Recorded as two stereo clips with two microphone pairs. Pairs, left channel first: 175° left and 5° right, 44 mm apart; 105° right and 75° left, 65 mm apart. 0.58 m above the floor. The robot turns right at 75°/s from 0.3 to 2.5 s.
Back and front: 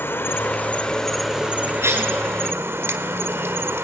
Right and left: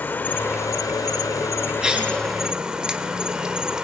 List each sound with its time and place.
0.0 s an insect: 165° right, 1.8 m; by 3.9 s straight ahead, 1.8 m
1.8 s a cough: straight ahead, 6 m; by 2.1 s 25° left, 6 m